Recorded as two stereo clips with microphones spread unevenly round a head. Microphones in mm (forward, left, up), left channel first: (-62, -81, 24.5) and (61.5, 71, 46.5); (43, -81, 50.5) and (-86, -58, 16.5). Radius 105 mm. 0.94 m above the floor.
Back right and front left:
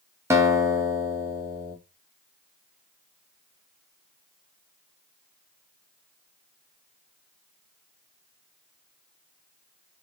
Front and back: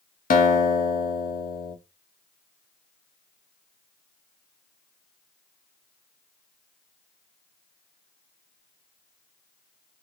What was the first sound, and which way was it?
A guitar, 30° right.